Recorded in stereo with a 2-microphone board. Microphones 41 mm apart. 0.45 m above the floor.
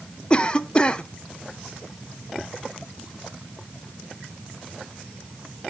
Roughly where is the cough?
Left.